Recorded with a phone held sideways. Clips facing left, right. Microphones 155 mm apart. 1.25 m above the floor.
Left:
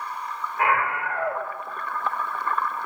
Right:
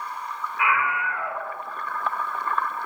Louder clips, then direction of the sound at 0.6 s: Left 2 dB; 40° left (ahead or behind).